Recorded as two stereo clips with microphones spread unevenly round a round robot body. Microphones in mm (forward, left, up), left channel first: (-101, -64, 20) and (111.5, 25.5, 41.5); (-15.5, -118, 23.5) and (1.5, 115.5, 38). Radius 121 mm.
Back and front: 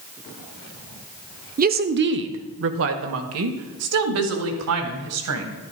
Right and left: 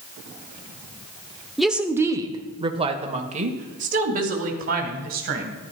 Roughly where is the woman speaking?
Ahead.